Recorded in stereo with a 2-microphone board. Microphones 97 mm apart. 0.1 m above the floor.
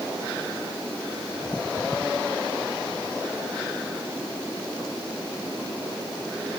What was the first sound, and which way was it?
Only background noise.